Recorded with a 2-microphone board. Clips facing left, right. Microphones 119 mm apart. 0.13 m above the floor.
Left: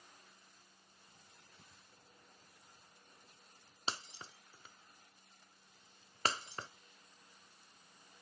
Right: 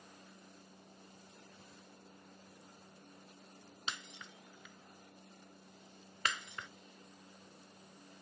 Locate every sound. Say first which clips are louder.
0.0 s a helicopter: right 7 dB; 55° right (ahead or behind)
3.9 s breaking glass: left 3 dB; 35° left (ahead or behind)